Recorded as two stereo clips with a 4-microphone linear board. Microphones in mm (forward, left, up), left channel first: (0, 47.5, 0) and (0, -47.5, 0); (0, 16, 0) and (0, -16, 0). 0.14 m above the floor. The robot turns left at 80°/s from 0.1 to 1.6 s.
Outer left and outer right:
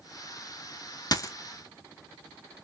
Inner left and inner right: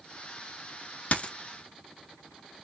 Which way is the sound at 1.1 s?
45° left (ahead or behind).